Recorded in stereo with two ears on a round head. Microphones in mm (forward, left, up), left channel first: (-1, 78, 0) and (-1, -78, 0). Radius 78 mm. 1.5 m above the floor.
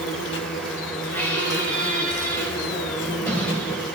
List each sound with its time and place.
0.0 s an insect: 75° left (ahead or behind), 1.9 m
1.1 s a squeak: 10° left (ahead or behind), 6.5 m